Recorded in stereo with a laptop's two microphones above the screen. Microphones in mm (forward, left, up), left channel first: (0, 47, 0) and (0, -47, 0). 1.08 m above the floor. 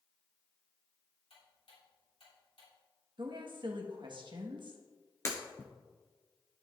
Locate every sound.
1.3 s ticking: 85° left, 3 m
3.2 s a woman speaking: 60° right (ahead or behind), 1.4 m
5.2 s breaking glass: 30° left (ahead or behind), 1.5 m